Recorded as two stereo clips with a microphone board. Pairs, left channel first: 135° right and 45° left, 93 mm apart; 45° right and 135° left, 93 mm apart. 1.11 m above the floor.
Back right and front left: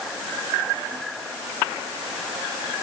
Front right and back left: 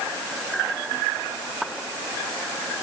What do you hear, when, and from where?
Only background noise.